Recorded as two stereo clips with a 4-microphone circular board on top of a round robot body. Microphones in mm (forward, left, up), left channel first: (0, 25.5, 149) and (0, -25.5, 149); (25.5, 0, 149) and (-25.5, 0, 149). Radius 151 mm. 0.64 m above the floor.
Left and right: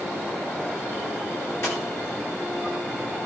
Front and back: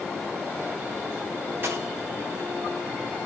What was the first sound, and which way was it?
A dropped coin, 130° left.